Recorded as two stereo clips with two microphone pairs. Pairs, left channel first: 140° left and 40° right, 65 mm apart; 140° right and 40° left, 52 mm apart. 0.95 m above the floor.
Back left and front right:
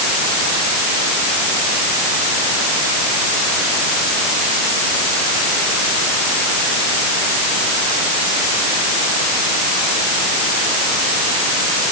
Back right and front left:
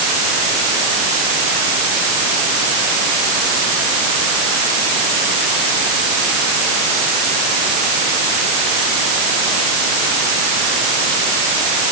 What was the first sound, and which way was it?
Only background noise.